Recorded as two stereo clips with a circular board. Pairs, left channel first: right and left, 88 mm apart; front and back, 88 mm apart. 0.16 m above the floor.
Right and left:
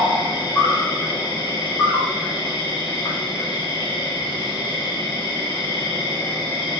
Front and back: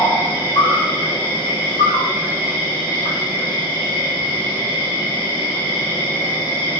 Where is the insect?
25° right, 3 m.